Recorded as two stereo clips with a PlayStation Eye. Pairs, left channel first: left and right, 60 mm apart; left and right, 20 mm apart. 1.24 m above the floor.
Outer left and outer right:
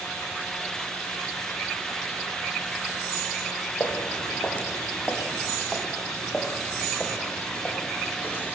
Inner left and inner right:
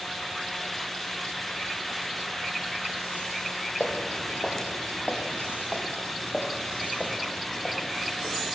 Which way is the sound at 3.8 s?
35° left (ahead or behind).